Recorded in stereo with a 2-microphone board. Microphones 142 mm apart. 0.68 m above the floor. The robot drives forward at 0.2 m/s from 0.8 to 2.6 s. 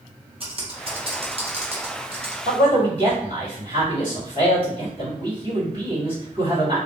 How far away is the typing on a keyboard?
About 0.8 m.